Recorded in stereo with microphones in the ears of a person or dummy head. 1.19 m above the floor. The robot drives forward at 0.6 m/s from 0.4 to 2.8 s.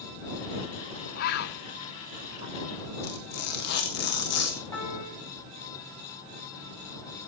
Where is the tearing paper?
65° left (ahead or behind), 2.5 m.